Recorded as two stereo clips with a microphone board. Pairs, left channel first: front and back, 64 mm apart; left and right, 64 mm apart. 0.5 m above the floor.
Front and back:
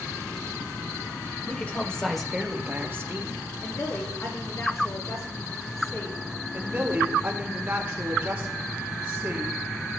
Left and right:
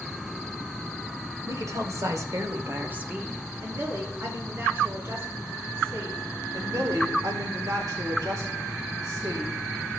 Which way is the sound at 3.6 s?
35° right.